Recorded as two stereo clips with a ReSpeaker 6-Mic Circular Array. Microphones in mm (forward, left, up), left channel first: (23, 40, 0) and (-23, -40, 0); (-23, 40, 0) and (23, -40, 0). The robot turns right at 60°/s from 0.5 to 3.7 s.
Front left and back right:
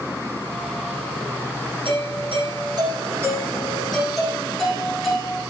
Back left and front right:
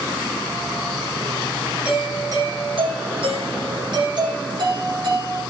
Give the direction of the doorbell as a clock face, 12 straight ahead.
5 o'clock.